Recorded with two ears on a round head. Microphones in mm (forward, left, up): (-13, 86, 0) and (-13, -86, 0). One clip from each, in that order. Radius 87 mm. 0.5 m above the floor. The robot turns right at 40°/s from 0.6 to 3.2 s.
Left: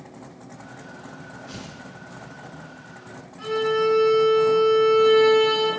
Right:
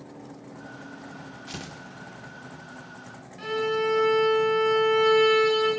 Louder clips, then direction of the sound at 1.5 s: Right 3 dB; 45° right (ahead or behind).